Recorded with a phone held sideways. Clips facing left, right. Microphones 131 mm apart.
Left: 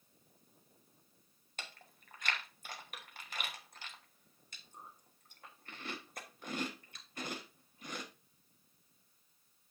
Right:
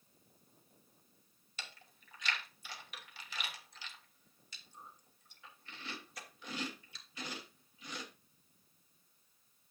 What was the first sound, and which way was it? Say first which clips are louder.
Chewing: left 2 dB; 50° left (ahead or behind).